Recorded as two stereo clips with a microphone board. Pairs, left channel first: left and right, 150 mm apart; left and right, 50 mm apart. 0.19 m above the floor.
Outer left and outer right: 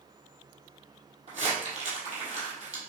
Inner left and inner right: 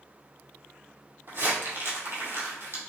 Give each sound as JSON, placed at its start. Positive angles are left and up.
{"t": 1.3, "sound": "crumpling", "side_deg": -50, "distance_m": 1.8}